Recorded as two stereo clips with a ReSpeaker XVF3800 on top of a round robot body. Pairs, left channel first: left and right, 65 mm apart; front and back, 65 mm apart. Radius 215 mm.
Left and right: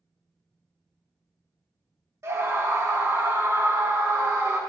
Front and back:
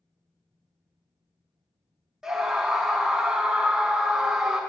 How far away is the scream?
About 1.7 m.